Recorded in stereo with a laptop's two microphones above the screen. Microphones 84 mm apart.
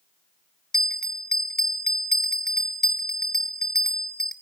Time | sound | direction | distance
0.7 | a bell | 5° left (ahead or behind) | 1.2 m